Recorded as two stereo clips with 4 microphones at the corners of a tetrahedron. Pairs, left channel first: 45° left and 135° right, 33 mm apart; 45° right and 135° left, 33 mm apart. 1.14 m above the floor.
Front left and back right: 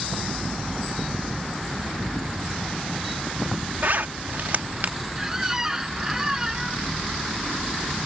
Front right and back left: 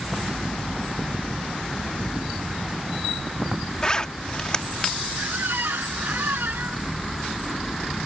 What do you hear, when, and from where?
3.8 s a zipper: 110° right
5.2 s a squeak: 150° left